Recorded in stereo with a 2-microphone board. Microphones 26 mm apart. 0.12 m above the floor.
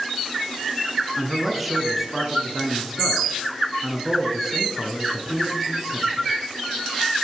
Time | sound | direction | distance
1.2 | a man speaking | 10° right (ahead or behind) | 1.4 m